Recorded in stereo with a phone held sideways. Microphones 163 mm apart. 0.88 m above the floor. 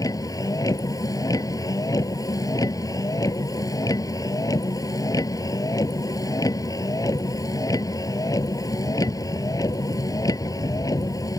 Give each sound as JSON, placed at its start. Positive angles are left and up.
{"t": 0.0, "sound": "a vehicle", "side_deg": 20}